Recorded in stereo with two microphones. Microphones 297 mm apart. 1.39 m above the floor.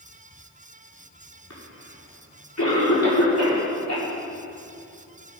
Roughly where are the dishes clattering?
No dishes clattering in this recording.